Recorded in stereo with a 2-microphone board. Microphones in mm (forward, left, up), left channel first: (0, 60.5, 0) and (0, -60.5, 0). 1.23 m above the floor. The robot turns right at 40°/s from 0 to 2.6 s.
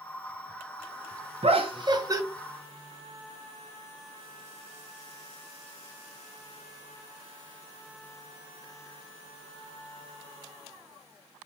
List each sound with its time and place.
1.4 s laughter: 55° right, 0.6 m; by 2.2 s 25° right, 0.6 m